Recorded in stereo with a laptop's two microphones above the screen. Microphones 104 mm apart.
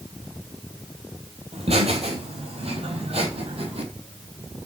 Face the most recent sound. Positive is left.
turn(degrees=-75)  # may be behind; listen again after turning